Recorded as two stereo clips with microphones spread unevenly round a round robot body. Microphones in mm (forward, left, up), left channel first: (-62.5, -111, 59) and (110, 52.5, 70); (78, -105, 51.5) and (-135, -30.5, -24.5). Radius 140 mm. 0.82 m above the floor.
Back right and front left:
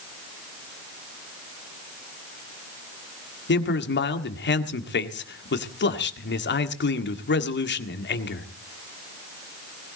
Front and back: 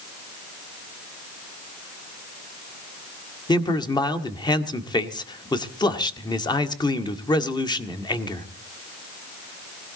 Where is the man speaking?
95° right, 1.8 m.